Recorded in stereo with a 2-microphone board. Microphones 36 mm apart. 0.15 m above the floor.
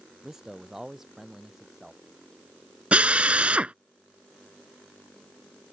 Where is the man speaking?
15° right (ahead or behind); by 2.0 s 10° right (ahead or behind).